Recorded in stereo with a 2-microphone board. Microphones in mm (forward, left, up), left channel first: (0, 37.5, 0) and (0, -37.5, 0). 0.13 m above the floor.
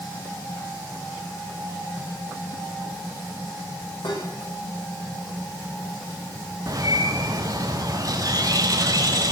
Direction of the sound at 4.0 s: 80° left.